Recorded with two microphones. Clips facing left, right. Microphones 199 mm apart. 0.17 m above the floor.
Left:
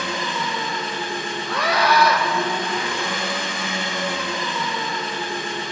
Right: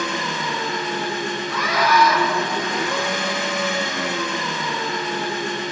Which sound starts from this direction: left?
A scream, at 1.5 s.